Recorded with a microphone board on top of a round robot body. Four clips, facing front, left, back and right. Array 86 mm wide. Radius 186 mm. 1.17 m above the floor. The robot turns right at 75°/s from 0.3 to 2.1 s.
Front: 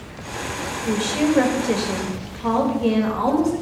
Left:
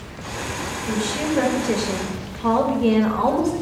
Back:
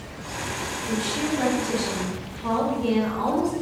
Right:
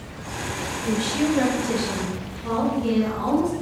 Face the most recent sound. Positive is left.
turn(degrees=60)